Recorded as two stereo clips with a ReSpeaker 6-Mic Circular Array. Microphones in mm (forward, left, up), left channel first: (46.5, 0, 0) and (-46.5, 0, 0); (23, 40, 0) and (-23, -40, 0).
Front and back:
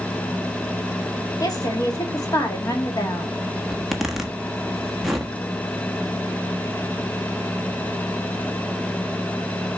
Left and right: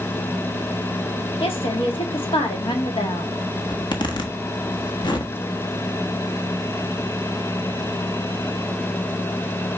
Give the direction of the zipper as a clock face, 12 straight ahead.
9 o'clock.